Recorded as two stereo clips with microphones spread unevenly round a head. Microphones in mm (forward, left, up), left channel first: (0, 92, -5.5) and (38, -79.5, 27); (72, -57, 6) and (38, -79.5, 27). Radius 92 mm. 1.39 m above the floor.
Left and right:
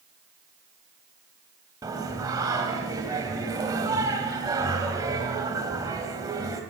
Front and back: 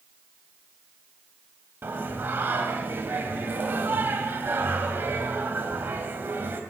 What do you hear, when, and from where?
1.8 s singing: 145° right, 3 m